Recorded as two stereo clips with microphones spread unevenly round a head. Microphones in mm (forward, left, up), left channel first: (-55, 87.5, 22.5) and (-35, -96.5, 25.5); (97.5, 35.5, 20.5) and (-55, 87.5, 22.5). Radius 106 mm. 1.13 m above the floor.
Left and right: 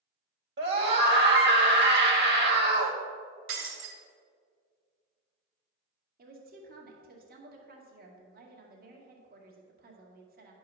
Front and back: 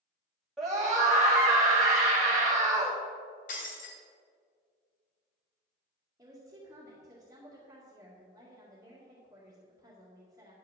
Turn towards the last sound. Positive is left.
turn(degrees=-125)